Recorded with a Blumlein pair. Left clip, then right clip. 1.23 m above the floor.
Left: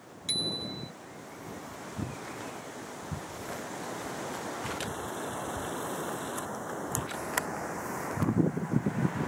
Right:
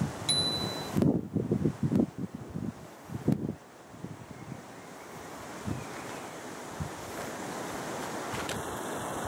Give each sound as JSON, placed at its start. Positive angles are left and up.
{"t": 0.3, "sound": "a bicycle bell", "azimuth_deg": -5}